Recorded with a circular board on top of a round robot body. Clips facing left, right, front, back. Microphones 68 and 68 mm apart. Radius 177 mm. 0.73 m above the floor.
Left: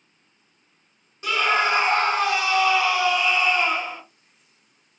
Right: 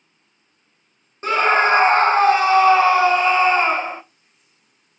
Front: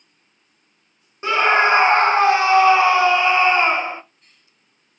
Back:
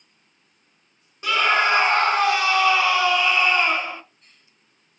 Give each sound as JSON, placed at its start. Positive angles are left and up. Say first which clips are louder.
{"t": 1.2, "sound": "a scream", "louder": "right 5 dB, front 4 dB", "azimuth_deg": -50, "distance_m": 0.6}